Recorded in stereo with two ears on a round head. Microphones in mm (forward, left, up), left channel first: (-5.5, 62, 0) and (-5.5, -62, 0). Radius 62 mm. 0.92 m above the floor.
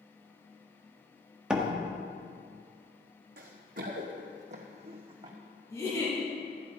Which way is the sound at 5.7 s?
20° left (ahead or behind).